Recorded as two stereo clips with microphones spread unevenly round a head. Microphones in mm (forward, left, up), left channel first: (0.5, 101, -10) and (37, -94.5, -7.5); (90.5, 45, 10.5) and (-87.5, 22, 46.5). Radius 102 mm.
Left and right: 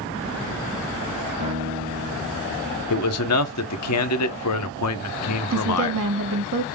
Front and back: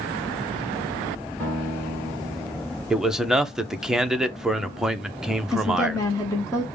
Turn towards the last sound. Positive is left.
turn(degrees=-70)